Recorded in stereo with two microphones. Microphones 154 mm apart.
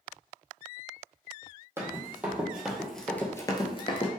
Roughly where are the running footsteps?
Centre.